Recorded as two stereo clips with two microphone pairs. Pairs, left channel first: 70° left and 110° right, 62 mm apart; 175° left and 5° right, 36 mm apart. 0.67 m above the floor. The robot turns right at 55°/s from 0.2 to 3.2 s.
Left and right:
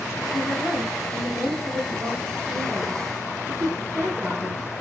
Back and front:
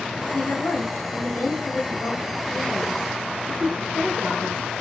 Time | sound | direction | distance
0.3 | a woman speaking | 125° left | 4.5 m